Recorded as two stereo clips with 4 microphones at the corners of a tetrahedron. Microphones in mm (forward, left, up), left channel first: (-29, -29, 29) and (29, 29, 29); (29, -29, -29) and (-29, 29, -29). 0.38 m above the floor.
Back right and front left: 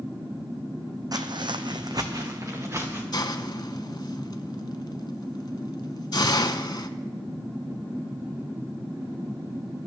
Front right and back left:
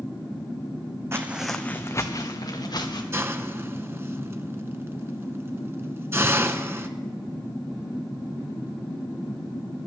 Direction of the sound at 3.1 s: 165° right.